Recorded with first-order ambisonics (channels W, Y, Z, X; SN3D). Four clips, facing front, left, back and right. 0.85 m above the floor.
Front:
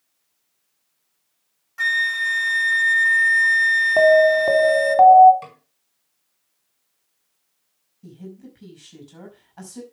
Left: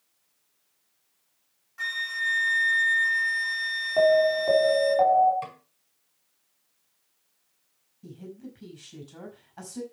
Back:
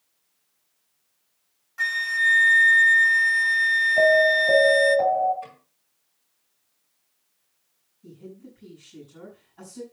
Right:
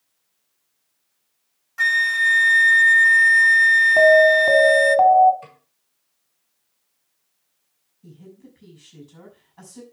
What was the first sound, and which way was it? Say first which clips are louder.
A flute: right 11 dB, front 2 dB; 75° right.